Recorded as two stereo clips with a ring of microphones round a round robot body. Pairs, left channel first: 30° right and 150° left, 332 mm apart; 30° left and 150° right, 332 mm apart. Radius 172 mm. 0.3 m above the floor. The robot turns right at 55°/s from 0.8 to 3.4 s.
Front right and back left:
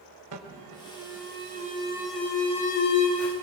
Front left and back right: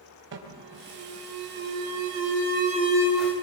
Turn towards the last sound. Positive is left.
turn(degrees=-50)